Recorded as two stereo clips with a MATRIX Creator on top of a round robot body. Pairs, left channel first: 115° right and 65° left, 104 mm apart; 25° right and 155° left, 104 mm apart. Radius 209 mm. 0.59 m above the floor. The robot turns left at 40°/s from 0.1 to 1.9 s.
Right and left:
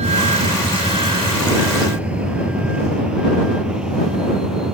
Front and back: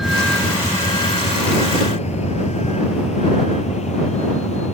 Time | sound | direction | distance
0.0 | a vehicle | 70° left | ?